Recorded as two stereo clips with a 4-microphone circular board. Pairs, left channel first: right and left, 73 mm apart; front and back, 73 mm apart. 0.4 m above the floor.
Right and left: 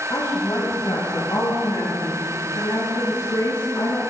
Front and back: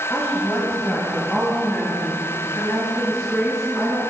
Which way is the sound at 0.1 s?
70° right.